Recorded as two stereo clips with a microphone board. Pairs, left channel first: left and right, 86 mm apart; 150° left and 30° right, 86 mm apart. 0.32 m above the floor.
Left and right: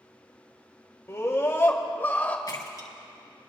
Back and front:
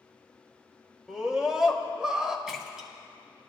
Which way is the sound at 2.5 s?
55° left.